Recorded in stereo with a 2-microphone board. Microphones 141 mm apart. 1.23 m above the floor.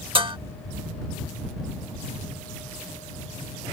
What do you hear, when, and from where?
0.1 s dishes clattering: 40° right (ahead or behind)